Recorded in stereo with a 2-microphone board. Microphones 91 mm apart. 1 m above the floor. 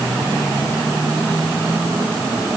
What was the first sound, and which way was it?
Only background noise.